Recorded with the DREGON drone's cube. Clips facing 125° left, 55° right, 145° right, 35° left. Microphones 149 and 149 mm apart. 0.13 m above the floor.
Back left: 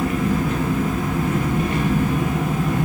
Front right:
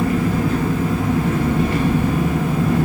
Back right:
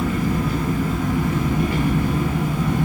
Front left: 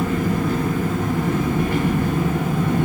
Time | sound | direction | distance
0.0 | an engine running | 5° right | 0.8 m